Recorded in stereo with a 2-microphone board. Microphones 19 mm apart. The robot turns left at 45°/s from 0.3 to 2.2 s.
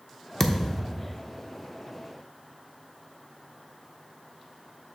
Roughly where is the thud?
Left.